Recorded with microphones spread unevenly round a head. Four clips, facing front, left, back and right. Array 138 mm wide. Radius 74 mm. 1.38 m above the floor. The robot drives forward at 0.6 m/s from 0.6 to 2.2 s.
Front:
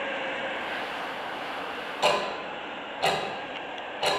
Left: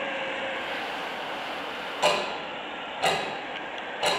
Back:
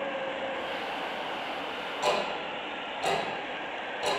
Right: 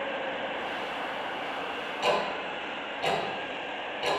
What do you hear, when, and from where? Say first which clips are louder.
2.0 s ticking: left 2 dB, front 3 dB; 50° left, 1.8 m